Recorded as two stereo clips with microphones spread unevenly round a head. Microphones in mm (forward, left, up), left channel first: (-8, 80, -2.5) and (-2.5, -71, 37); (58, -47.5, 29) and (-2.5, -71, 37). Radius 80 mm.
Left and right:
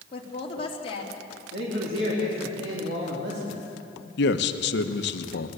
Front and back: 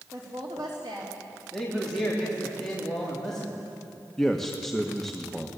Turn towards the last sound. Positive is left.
turn(degrees=110)